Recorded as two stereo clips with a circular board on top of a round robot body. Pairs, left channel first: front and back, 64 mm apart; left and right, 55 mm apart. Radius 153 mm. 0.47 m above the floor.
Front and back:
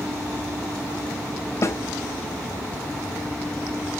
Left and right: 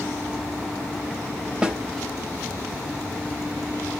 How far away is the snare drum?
About 0.9 m.